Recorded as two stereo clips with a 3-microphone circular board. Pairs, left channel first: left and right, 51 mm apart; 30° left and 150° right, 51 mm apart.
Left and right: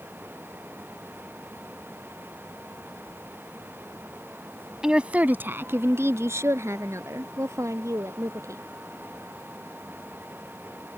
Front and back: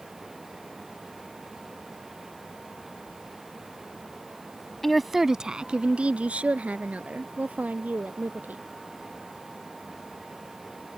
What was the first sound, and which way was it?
A woman speaking, 40° right.